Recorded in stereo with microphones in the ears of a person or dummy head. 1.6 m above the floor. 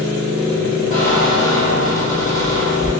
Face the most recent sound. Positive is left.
turn(degrees=50)  # may be behind; listen again after turning